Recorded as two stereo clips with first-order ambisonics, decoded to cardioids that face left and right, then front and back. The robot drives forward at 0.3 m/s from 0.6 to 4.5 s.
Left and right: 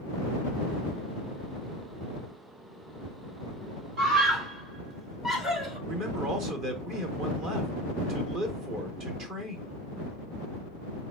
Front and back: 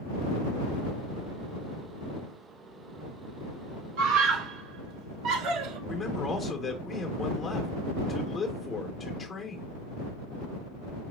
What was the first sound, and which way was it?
A scream, 160° right.